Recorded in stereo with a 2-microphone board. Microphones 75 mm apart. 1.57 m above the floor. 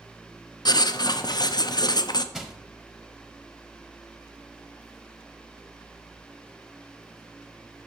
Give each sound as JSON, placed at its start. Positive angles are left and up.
{"t": 0.7, "sound": "writing", "side_deg": 60, "distance_m": 0.5}
{"t": 2.3, "sound": "crushing", "side_deg": -5, "distance_m": 0.9}